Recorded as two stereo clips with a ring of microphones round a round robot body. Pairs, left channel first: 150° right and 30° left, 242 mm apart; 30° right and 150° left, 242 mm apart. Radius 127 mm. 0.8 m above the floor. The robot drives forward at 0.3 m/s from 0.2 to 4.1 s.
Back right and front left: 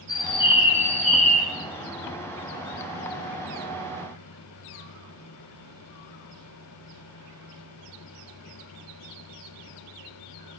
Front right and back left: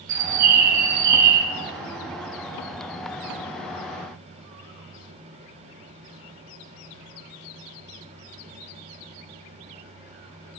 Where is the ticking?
I don't hear ticking.